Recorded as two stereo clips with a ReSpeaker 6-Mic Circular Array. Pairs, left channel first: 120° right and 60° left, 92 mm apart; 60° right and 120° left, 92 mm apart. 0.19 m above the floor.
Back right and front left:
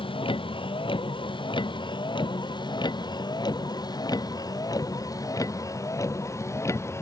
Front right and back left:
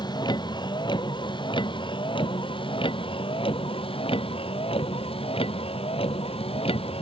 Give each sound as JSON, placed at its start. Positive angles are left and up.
{"t": 0.0, "sound": "a vehicle", "azimuth_deg": -100}